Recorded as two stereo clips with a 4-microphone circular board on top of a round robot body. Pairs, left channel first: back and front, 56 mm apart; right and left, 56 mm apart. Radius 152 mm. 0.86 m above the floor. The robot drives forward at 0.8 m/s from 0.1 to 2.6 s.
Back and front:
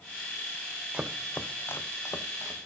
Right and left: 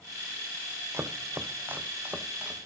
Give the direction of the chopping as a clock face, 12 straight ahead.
10 o'clock.